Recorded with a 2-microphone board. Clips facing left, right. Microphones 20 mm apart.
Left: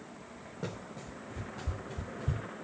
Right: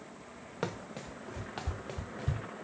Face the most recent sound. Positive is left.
turn(degrees=-70)  # may be behind; listen again after turning